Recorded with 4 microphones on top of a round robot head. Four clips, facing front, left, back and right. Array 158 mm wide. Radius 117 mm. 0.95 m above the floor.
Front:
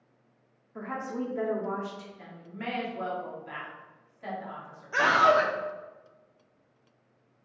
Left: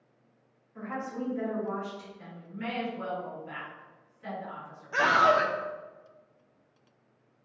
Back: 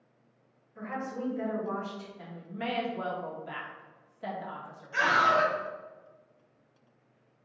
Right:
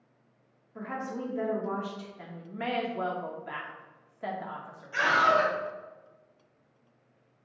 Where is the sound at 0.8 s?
25° right, 2 m.